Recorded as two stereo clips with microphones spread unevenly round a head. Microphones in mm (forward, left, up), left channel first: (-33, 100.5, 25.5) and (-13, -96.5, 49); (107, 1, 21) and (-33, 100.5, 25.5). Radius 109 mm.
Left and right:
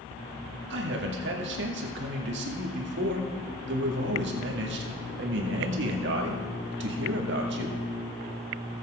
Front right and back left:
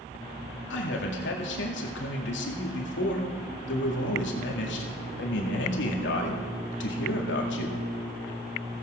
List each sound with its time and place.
0.7 s a man speaking: 45° right, 2 m